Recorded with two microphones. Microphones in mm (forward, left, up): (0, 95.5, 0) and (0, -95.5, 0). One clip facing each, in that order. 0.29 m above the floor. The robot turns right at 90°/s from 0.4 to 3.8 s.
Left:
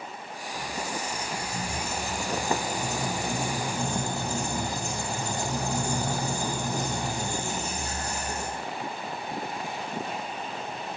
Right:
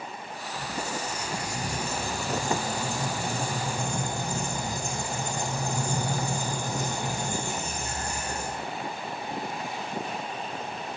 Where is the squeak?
170° left, 3 m; by 8.6 s 100° left, 3 m.